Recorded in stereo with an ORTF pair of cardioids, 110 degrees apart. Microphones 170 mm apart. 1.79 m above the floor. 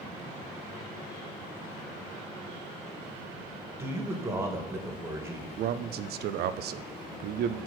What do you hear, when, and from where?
3.8 s a man speaking: 15° right, 2 m
5.6 s a man speaking: 70° right, 0.6 m